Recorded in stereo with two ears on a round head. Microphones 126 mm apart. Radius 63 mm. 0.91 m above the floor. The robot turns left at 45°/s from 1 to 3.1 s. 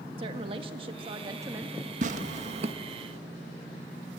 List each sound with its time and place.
0.2 s a woman speaking: 135° right, 1.5 m; by 1.9 s 175° right, 1.5 m
2.0 s tearing paper: 55° right (ahead or behind), 1.3 m; by 2.7 s 45° right (ahead or behind), 1.3 m